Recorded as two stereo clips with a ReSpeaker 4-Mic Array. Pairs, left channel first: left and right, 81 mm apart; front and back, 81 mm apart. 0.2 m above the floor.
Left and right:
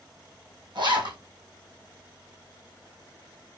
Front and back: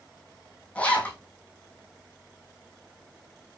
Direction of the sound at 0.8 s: 75° right.